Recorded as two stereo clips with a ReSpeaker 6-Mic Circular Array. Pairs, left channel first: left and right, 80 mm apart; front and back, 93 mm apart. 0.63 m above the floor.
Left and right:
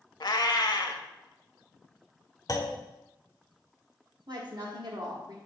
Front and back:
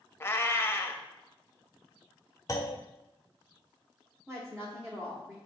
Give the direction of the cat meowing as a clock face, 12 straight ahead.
10 o'clock.